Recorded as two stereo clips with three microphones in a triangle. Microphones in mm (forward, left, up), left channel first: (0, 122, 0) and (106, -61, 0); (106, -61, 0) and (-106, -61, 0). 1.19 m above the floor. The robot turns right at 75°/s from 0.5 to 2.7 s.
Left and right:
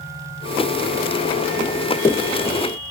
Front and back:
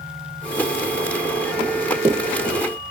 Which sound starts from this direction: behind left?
Running footsteps, at 1.6 s.